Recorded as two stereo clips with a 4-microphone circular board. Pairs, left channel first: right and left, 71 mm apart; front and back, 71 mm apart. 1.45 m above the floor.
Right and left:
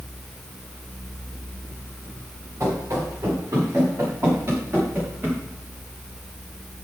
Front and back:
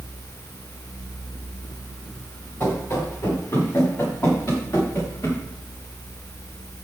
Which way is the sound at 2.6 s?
45° left.